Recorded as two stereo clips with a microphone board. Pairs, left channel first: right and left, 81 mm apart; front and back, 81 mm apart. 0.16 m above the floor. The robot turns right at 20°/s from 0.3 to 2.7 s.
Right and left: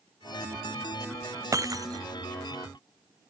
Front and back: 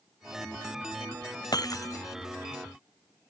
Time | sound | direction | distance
1.5 | breaking glass | 40° left | ?